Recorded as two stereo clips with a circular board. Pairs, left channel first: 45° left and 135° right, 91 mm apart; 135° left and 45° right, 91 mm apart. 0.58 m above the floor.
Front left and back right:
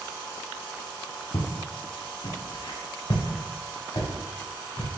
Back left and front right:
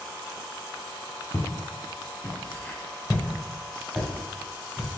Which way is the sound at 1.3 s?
70° left.